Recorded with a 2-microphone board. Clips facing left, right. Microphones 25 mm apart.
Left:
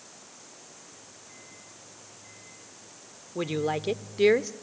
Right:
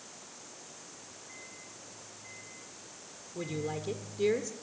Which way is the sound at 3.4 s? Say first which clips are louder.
Left 8 dB; 45° left (ahead or behind).